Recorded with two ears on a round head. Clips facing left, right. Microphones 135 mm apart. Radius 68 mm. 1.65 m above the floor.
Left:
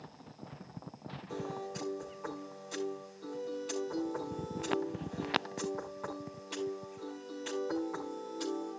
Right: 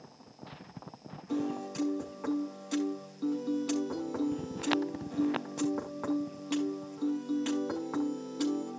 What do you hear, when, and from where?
1.3 s a piano: 70° right (ahead or behind), 5.5 m